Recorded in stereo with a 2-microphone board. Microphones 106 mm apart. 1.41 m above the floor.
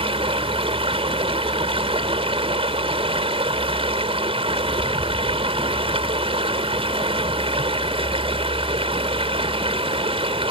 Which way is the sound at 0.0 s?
65° right (ahead or behind).